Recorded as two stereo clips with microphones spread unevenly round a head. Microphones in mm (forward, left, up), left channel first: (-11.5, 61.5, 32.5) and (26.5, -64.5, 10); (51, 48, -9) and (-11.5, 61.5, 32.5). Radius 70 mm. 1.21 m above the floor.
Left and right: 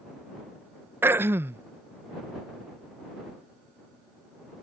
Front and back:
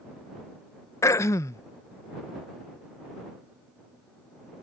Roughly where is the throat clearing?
Ahead.